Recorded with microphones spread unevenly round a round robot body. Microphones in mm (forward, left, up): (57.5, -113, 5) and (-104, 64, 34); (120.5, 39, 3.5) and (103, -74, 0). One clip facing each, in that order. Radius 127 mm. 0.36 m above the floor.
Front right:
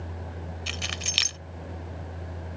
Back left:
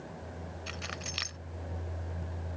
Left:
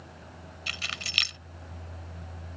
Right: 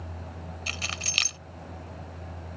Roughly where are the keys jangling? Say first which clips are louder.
Front right 4 dB, even; ahead right.